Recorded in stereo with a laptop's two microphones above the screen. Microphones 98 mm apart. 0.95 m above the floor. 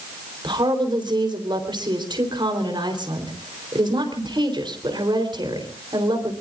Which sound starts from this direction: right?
A woman speaking, at 0.4 s.